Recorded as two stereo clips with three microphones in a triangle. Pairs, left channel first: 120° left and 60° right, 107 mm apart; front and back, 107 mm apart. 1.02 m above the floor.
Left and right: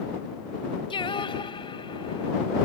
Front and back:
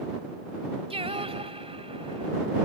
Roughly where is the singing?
Behind left.